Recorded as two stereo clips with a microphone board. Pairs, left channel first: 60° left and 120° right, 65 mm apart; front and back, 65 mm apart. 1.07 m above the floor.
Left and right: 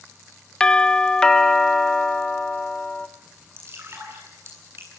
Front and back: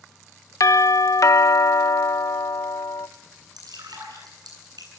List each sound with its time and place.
0.6 s a doorbell: 15° right, 1.0 m
3.6 s dripping: 170° right, 10 m